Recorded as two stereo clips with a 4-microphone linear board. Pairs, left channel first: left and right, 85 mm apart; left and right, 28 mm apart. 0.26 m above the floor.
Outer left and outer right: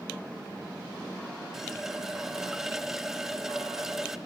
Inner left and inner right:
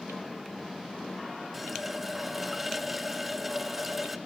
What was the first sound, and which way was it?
A running tap, 5° right (ahead or behind).